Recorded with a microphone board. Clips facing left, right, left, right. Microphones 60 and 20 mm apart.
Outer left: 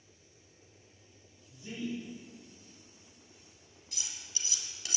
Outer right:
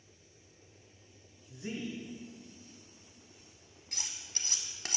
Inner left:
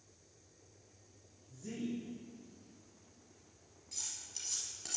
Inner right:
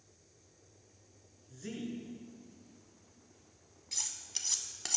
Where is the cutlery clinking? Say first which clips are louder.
Outer right 1 dB, inner right 6 dB; 50° right (ahead or behind), 0.9 m.